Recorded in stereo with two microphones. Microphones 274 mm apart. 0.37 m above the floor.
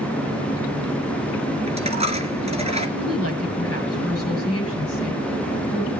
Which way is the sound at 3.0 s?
60° left (ahead or behind).